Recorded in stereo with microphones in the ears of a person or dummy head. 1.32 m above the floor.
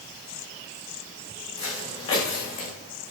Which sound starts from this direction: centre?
Footsteps, at 1.6 s.